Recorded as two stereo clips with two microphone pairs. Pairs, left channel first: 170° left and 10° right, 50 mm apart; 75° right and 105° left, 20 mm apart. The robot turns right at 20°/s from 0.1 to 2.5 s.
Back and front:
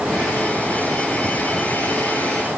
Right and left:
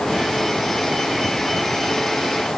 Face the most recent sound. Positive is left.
No sound to turn to.